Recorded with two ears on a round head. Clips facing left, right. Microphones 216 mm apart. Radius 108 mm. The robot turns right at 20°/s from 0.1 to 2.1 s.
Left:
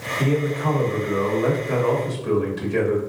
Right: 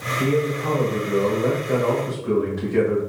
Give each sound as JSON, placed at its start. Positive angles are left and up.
{"t": 0.2, "sound": "a man speaking", "azimuth_deg": 20, "distance_m": 2.0}